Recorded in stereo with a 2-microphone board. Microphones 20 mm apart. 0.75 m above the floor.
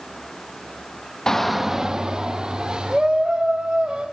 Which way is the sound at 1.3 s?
30° left (ahead or behind).